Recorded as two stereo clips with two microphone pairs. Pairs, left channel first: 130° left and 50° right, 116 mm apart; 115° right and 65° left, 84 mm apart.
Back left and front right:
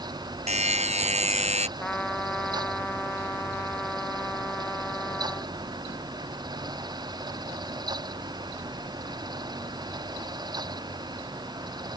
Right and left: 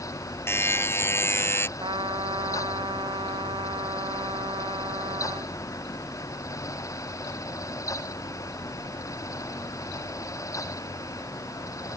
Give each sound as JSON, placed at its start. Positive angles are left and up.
{"t": 0.5, "sound": "a buzzer", "azimuth_deg": -55}
{"t": 1.8, "sound": "a trumpet", "azimuth_deg": 50}